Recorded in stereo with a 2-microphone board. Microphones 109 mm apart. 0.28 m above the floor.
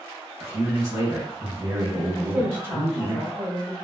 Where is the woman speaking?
20° right (ahead or behind), 1.3 m.